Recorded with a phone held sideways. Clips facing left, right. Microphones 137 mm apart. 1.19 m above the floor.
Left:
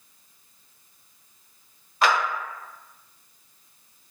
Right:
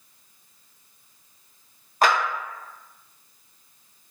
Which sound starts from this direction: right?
A clap, at 2.0 s.